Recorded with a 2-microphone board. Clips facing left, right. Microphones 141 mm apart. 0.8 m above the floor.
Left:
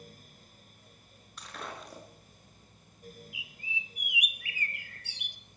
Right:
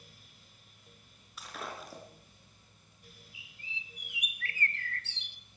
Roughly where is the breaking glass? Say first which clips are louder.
Even; centre.